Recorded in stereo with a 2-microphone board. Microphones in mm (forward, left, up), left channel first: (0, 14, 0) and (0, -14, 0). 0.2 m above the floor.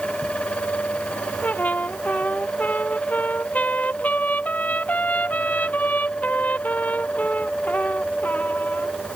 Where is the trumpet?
75° left (ahead or behind).